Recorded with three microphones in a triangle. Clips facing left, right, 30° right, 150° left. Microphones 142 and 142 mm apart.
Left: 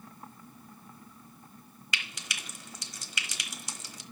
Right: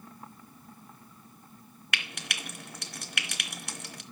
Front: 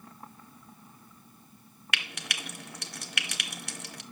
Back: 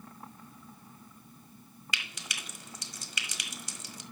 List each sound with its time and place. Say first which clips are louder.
1.9 s frying: right 3 dB, front 4 dB; 60° right, 1.2 m